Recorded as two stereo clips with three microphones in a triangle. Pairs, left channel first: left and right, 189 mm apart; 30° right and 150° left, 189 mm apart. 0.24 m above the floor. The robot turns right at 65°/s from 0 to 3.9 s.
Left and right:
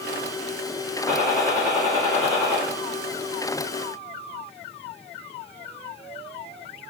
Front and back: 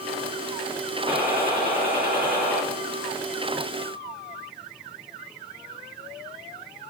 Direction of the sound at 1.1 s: 95° left.